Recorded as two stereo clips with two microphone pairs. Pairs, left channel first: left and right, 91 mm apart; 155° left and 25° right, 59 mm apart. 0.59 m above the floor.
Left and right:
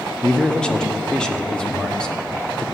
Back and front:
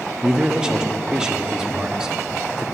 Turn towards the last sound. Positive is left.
turn(degrees=25)